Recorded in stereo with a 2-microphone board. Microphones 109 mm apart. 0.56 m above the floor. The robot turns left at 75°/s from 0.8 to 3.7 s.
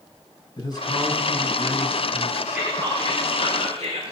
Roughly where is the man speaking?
Ahead left.